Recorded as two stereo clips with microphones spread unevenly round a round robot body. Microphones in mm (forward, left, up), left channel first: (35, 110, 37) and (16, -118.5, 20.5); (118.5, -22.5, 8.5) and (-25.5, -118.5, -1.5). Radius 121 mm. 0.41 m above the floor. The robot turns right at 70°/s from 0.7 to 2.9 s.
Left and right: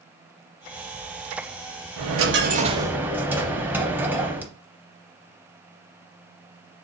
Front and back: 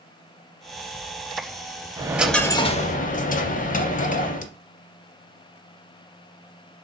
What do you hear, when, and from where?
2.0 s a dropped coin: 80° right, 0.6 m; by 4.5 s 10° right, 0.6 m